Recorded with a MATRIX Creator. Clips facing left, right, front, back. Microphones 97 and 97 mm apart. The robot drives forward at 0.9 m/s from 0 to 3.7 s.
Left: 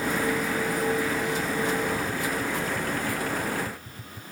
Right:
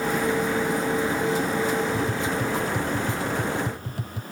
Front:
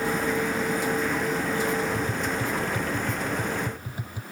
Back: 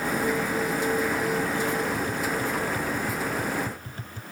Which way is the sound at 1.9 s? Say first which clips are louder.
Right 3 dB, even; 60° right.